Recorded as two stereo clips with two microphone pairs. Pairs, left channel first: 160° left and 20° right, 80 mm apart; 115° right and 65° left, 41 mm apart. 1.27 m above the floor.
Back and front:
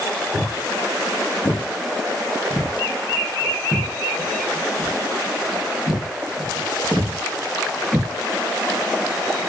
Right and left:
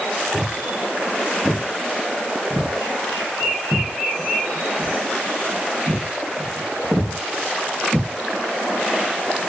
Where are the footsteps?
145° left, 2 m; by 8.1 s 65° left, 4 m.